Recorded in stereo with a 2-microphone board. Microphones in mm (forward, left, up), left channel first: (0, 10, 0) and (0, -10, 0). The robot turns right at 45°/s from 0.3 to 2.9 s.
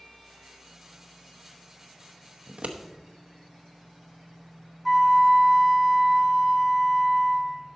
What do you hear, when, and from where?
2.5 s scissors: 80° right, 0.8 m; by 2.8 s 70° right (ahead or behind), 0.8 m
4.8 s a flute: 5° right (ahead or behind), 0.8 m